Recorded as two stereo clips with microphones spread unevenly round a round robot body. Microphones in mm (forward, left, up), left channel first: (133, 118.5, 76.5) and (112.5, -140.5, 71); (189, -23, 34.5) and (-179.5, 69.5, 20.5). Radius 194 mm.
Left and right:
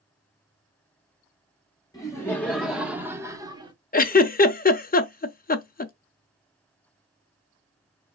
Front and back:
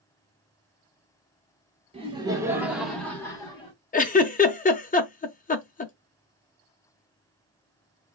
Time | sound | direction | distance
1.9 | laughter | 135° left | 1.3 m
3.9 | a giggle | 45° left | 0.6 m